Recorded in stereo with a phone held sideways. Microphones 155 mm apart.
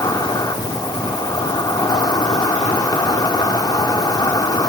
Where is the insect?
25° left (ahead or behind), 1.4 m.